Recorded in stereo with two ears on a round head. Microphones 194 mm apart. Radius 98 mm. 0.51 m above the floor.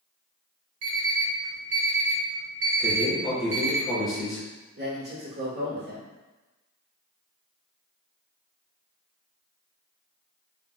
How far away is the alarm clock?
About 1.1 m.